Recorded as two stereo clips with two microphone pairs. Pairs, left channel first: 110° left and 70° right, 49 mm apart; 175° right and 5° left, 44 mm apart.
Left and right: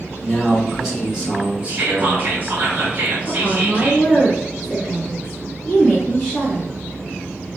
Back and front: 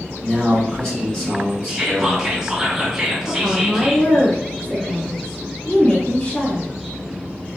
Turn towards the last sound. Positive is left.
turn(degrees=180)